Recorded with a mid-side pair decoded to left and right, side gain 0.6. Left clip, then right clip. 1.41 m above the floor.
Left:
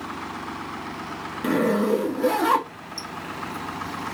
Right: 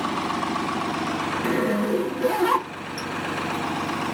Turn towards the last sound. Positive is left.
turn(degrees=15)